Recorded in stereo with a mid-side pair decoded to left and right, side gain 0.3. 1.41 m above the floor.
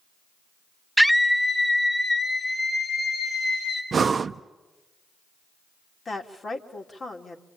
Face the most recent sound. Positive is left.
turn(degrees=55)